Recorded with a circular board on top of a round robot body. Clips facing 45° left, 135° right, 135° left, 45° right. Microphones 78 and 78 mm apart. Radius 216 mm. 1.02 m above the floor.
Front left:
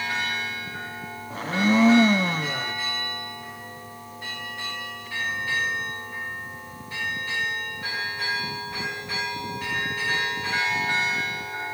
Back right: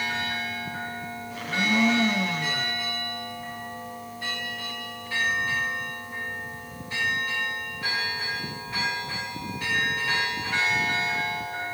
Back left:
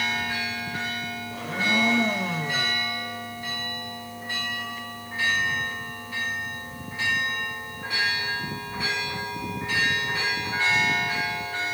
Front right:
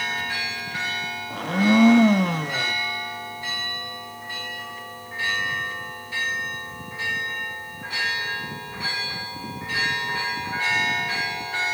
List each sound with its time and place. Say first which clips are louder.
1.3 s a blender: front left 4 dB, front right 7 dB; 10° right, 1.5 m